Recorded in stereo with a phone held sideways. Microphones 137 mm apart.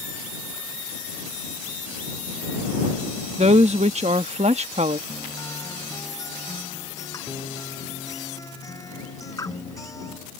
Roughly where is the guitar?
Left.